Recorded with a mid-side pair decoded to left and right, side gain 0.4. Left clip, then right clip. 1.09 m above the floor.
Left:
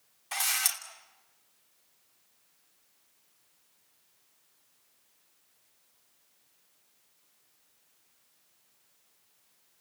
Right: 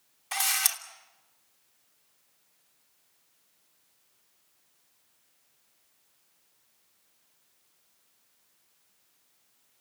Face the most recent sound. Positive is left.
turn(degrees=-30)